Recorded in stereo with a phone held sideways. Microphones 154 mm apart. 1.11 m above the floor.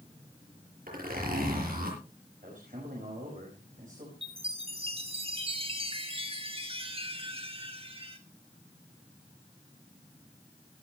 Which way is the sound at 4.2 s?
40° right (ahead or behind).